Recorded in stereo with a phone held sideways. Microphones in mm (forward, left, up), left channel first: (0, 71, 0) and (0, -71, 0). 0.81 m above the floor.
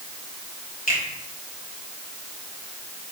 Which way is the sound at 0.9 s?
80° left.